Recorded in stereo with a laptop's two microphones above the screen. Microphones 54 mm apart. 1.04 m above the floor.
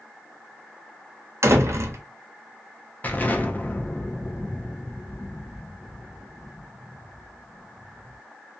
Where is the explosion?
35° left (ahead or behind), 0.6 m.